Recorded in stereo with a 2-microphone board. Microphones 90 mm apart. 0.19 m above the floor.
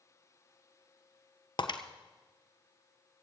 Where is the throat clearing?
No throat clearing in this recording.